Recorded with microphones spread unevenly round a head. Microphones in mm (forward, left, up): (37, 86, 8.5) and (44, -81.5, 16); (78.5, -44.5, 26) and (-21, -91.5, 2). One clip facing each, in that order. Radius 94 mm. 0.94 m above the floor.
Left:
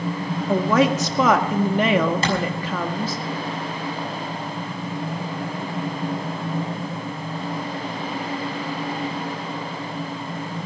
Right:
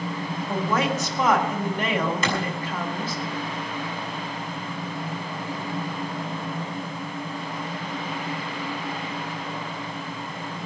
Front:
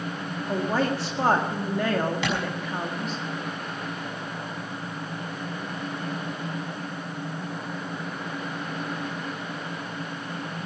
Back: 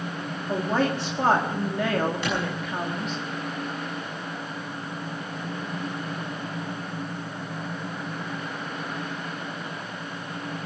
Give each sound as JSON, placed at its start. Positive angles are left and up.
{"t": 0.5, "sound": "a woman speaking", "azimuth_deg": 115, "distance_m": 1.7}
{"t": 2.2, "sound": "a clap", "azimuth_deg": 35, "distance_m": 6.0}